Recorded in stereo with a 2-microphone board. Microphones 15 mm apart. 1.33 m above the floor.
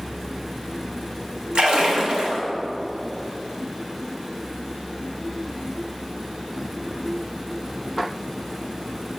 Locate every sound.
1.6 s a splash: 60° right (ahead or behind), 1.2 m